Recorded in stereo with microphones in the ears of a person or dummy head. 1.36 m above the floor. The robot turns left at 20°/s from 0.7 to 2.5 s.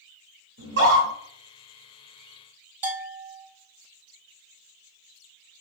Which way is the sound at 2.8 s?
40° right (ahead or behind).